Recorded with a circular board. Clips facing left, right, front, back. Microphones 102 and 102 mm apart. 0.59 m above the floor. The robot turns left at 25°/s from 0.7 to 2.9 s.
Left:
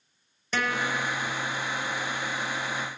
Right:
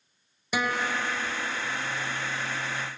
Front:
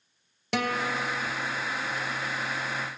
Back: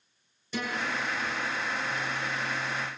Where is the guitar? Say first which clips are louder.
Even, front 4 dB; 10° right, 2.5 m; by 1.2 s 25° right, 2.5 m.